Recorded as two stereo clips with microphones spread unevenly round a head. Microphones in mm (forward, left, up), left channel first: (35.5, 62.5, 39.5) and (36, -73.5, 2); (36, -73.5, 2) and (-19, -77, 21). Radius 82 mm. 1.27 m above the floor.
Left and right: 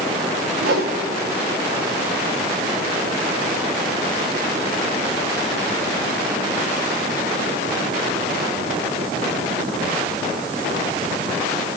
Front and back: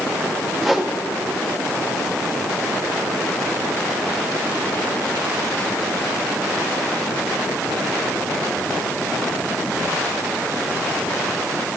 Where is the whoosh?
95° right, 1.4 m.